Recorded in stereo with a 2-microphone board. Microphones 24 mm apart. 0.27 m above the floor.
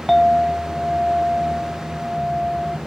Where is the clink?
Centre (ahead or behind), 0.7 m.